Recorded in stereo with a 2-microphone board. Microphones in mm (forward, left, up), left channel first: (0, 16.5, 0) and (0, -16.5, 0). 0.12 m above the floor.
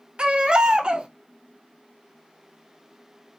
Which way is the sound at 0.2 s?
35° right (ahead or behind).